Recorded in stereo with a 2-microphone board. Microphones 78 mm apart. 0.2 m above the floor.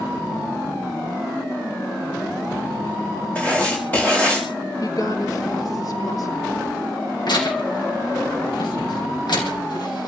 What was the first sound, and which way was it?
Writing, 15° left (ahead or behind).